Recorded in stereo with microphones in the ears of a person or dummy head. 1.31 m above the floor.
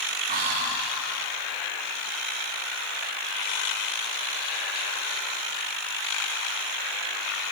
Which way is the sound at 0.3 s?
50° right (ahead or behind).